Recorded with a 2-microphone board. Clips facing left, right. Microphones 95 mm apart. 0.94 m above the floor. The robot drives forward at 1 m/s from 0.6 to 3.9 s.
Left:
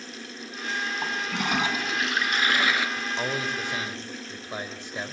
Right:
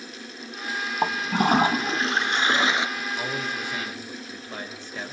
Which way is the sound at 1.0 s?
50° right (ahead or behind).